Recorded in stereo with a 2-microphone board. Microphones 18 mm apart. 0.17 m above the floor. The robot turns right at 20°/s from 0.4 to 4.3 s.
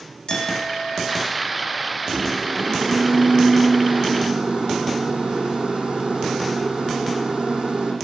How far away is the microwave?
About 8.5 m.